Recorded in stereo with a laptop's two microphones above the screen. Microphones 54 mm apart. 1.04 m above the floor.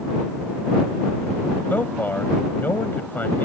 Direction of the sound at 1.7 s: 35° left (ahead or behind).